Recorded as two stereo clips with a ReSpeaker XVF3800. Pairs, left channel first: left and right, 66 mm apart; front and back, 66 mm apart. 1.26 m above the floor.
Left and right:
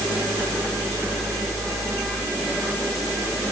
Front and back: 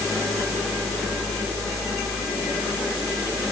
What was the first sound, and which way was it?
Only background noise.